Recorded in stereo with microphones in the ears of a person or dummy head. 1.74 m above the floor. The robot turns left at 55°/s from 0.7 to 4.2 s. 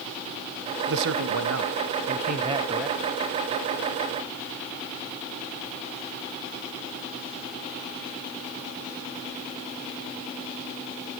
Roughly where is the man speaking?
Ahead right.